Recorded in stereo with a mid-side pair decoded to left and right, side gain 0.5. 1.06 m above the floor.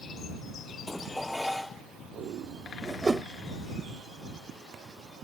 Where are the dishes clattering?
10° left.